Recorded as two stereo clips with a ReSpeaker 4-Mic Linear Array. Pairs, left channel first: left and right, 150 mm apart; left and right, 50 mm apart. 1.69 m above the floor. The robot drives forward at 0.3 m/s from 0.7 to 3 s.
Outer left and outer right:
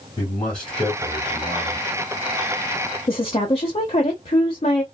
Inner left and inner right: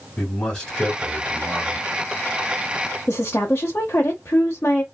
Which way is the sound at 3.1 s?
40° left (ahead or behind).